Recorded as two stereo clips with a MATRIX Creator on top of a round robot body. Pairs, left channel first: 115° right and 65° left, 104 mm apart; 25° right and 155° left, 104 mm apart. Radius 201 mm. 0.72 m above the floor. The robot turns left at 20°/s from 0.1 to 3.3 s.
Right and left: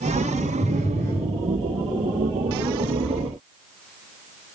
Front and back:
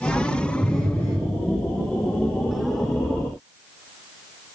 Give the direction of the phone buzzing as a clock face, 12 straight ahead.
4 o'clock.